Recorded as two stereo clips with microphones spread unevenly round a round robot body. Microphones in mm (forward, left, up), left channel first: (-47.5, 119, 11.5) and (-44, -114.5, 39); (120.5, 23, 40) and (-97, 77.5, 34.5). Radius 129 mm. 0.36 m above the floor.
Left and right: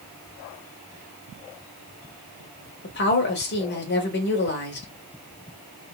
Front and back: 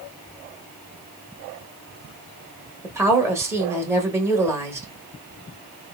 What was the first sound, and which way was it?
A woman speaking, 90° left.